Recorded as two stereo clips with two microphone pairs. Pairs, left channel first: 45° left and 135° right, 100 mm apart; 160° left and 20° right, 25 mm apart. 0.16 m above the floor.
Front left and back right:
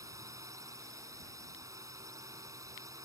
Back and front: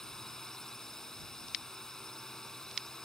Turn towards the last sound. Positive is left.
turn(degrees=-150)